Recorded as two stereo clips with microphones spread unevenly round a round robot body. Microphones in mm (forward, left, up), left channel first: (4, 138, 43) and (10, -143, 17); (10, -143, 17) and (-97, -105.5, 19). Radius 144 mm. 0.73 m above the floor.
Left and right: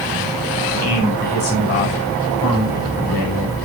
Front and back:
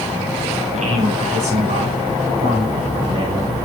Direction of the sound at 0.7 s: 155° left.